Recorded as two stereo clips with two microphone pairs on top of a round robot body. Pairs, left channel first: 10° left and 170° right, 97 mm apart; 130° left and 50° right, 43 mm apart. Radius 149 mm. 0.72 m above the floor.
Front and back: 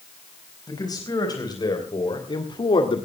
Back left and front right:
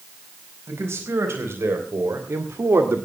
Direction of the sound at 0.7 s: 45° right.